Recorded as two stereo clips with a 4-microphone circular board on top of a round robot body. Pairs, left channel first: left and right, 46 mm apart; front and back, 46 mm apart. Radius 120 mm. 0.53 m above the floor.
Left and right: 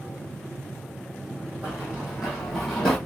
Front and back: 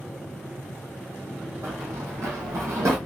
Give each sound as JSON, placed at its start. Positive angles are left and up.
{"t": 1.6, "sound": "running footsteps", "azimuth_deg": -155, "distance_m": 1.2}